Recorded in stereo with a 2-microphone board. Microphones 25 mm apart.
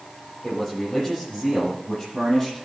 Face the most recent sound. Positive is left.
turn(degrees=5)  # may be behind; listen again after turning